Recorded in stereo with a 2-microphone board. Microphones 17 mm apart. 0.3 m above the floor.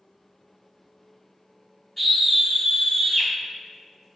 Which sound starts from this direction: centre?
A scream, at 2.0 s.